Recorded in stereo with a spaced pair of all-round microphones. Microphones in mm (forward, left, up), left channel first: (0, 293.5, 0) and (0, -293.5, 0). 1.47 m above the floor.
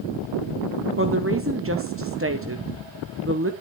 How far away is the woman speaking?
About 0.9 m.